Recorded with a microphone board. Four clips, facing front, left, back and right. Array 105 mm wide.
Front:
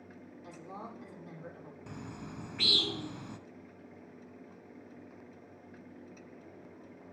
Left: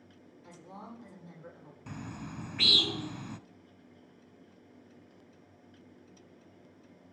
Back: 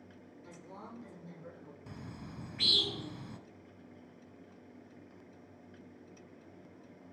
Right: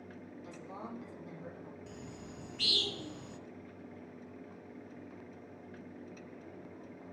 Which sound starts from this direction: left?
A bird, at 1.9 s.